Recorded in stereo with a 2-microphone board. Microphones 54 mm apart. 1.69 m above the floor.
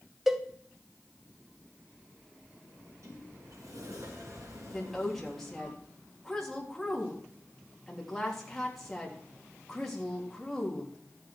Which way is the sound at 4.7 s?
5° left (ahead or behind).